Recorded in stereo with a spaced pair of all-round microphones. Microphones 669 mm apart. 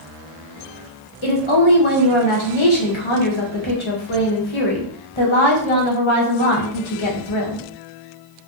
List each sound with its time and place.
1.2 s a woman speaking: 45° left (ahead or behind), 0.9 m